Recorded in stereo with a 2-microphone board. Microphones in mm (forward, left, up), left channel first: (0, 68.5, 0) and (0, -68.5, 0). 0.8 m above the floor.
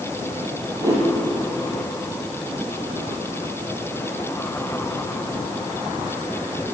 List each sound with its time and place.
0.8 s a whoosh: 25° right (ahead or behind), 8 m